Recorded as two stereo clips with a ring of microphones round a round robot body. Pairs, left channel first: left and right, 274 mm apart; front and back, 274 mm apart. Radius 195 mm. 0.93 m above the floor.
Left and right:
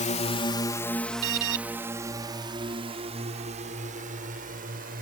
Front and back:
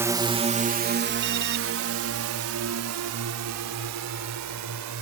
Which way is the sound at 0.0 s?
110° left.